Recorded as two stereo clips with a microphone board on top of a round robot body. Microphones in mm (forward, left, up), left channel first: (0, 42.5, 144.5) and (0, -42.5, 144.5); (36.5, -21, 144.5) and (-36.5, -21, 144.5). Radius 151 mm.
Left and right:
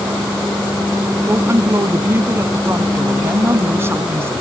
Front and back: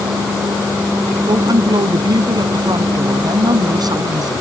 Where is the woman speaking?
150° right.